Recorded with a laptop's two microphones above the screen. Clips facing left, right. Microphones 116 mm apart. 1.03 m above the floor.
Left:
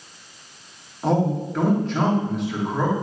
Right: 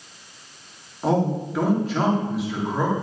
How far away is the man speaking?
About 2.5 m.